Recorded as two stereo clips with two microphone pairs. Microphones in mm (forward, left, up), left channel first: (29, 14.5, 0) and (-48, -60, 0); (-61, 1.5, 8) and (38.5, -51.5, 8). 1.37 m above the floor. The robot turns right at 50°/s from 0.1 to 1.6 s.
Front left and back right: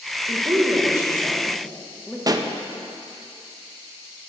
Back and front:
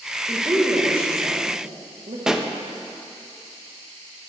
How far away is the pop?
About 0.7 m.